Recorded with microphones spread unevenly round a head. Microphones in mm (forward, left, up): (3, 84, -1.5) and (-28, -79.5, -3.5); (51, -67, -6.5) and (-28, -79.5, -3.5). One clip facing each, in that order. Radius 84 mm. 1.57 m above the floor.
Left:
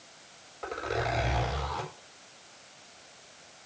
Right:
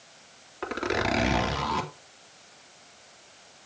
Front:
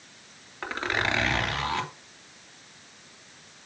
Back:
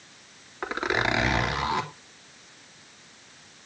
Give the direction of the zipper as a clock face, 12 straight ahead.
3 o'clock.